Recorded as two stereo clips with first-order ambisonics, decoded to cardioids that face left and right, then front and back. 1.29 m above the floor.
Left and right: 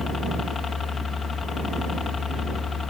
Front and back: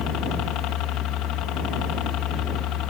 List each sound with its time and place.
0.0 s a helicopter: 25° left